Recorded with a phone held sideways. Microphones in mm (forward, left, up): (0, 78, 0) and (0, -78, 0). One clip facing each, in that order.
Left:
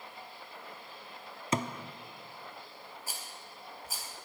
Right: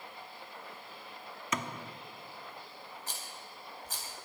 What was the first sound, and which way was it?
A thud, 30° left (ahead or behind).